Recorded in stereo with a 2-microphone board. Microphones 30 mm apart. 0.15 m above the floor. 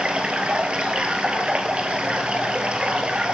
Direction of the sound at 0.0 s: 35° right (ahead or behind).